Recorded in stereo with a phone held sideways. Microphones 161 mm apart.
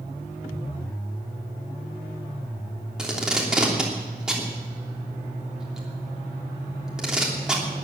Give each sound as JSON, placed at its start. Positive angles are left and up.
{"t": 3.0, "sound": "tape being pulled", "side_deg": -5, "distance_m": 3.0}